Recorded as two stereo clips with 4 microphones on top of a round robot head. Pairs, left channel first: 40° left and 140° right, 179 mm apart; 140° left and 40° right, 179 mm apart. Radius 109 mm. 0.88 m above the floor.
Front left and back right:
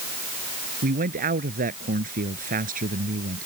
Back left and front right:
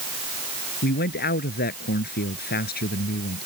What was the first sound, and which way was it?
A man speaking, 175° left.